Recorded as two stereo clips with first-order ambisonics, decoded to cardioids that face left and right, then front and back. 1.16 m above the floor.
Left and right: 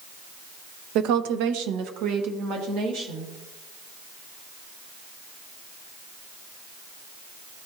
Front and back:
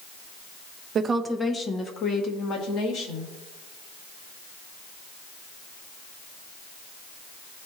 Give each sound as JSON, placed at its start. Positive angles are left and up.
{"t": 0.9, "sound": "a woman speaking", "azimuth_deg": -120, "distance_m": 0.6}